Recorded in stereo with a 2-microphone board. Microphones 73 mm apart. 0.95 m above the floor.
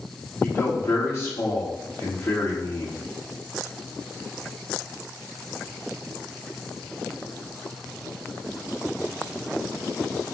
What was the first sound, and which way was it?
A man speaking, 40° left (ahead or behind).